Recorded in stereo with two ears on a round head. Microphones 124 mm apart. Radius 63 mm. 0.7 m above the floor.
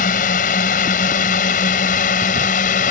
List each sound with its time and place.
0.0 s a drone: 60° left (ahead or behind)